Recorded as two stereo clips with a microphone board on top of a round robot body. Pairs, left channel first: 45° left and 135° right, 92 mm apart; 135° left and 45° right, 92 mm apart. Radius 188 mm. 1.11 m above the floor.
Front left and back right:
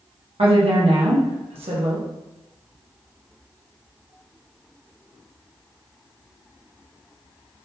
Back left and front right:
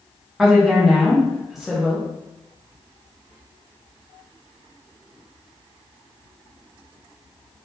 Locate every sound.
0.4 s a woman speaking: 130° right, 1.0 m